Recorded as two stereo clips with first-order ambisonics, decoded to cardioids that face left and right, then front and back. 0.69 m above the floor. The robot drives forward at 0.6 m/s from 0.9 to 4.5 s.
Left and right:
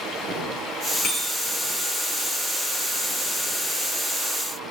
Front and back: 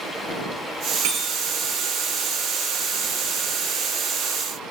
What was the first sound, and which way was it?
A bicycle bell, 160° left.